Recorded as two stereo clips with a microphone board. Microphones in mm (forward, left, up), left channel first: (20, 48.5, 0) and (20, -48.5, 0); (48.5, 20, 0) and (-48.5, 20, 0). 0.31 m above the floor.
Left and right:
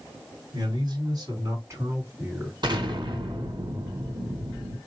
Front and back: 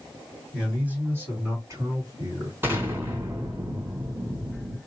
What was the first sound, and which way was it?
A man speaking, 105° right.